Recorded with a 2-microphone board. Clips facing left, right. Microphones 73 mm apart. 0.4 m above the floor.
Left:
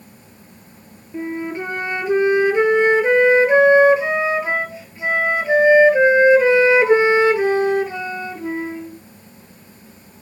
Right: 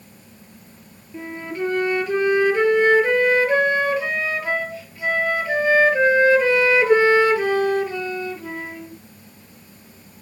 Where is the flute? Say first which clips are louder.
Left 4 dB; 20° left (ahead or behind), 1.2 m.